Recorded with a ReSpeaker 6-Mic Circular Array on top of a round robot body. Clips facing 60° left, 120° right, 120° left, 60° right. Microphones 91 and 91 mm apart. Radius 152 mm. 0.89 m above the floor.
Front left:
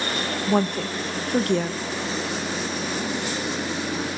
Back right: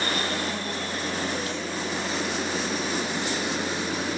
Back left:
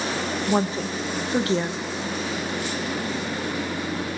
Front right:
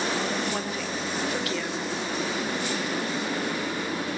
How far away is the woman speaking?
About 1.4 m.